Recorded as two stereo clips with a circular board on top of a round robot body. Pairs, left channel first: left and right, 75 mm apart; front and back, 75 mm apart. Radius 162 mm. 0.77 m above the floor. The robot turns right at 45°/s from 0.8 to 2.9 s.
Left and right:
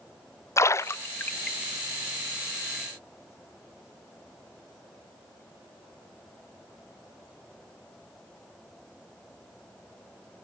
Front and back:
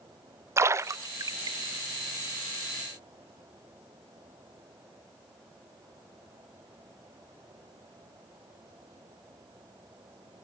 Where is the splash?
135° left, 0.6 m; by 1.6 s 170° left, 0.6 m.